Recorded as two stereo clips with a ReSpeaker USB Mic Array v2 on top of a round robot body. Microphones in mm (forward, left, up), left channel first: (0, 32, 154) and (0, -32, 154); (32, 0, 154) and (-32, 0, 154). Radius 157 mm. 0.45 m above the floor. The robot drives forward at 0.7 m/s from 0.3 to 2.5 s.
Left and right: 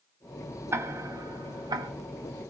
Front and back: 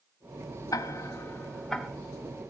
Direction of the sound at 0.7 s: 35° right.